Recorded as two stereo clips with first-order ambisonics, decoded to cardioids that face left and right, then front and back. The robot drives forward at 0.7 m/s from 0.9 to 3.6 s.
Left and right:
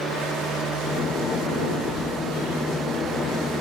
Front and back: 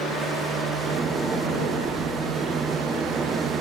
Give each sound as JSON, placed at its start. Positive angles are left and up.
{"t": 1.8, "sound": "keys jangling", "azimuth_deg": -165, "distance_m": 1.0}